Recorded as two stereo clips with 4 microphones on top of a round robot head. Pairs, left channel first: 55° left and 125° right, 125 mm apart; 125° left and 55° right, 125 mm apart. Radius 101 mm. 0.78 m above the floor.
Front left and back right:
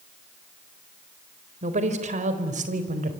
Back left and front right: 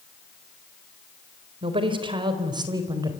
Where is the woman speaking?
100° right, 4 m; by 3.1 s 115° right, 4.5 m.